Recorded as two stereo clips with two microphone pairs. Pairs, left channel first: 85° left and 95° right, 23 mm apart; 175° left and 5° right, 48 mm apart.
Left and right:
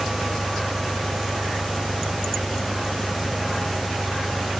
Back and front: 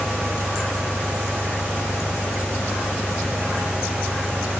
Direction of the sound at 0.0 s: 155° right.